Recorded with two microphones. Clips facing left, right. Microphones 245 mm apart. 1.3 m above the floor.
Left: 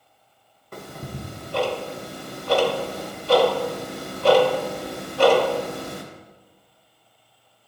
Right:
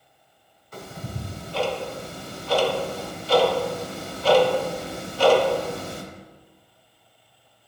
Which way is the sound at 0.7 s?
65° left (ahead or behind).